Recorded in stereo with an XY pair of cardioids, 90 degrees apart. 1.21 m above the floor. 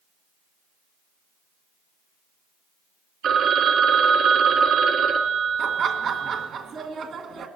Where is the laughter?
65° right, 1.7 m.